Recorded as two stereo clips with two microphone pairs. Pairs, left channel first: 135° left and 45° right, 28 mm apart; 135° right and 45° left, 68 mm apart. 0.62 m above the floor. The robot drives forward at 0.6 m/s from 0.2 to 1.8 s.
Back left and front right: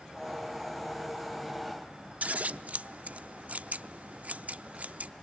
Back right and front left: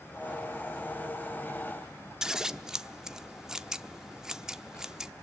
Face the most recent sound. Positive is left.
turn(degrees=-35)